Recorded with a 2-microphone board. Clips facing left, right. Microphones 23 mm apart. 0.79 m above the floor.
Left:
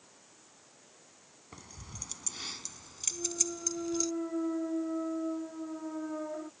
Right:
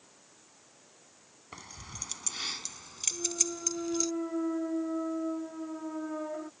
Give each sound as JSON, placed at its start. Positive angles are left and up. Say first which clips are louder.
{"t": 1.5, "sound": "keys jangling", "louder": "right 4 dB", "side_deg": -35}
{"t": 3.1, "sound": "a clunk", "louder": "right 1 dB", "side_deg": -15}